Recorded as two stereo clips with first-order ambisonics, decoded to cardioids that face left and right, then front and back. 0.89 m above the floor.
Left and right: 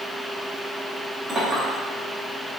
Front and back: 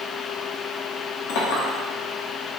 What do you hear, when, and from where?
1.3 s a clink: 10° right, 1.5 m